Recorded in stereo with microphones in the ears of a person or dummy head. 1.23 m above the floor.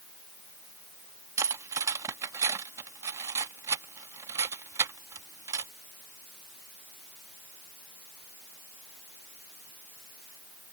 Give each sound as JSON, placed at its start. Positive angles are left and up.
{"t": 1.4, "sound": "cutlery clinking", "side_deg": -20}